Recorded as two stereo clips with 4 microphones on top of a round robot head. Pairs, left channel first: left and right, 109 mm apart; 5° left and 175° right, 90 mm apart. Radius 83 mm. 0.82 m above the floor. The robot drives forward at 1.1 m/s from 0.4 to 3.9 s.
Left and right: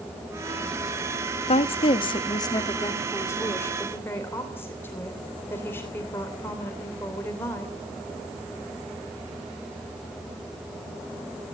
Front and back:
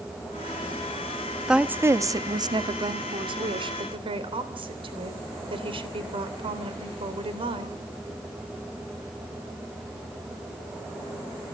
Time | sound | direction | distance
1.5 | a woman speaking | 100° left | 1.0 m